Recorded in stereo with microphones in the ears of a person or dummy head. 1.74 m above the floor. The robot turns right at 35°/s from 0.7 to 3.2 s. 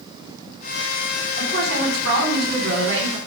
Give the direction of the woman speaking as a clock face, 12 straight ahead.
4 o'clock.